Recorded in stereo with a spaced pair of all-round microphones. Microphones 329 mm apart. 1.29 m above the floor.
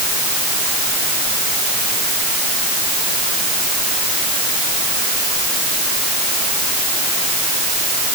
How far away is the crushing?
I don't hear crushing.